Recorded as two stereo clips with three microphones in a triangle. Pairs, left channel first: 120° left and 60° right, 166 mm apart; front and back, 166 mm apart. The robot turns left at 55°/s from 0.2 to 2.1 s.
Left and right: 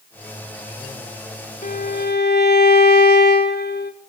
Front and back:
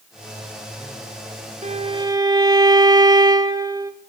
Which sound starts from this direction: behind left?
A violin, at 1.6 s.